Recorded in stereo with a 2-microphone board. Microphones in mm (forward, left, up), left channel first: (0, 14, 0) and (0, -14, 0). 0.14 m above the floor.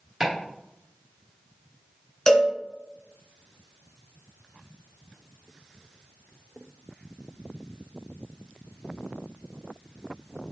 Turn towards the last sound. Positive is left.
turn(degrees=20)  # may be behind; listen again after turning